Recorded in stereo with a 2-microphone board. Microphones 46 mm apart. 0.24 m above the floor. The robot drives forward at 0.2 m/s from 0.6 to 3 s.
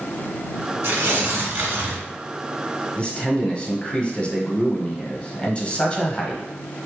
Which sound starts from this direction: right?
Tearing paper, at 0.8 s.